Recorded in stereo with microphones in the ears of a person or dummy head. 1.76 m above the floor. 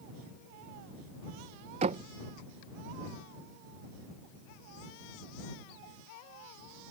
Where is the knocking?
30° right (ahead or behind).